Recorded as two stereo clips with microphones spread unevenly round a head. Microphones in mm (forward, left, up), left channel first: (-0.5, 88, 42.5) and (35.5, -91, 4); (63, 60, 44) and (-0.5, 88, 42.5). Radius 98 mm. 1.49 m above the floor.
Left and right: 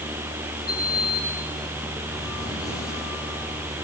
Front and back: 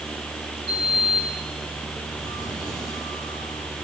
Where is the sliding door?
175° left, 6.5 m.